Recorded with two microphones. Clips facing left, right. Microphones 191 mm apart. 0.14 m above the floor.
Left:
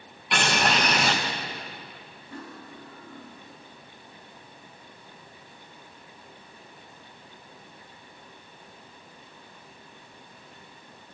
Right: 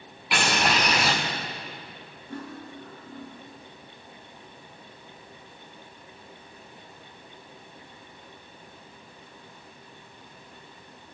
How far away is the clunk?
I don't hear a clunk.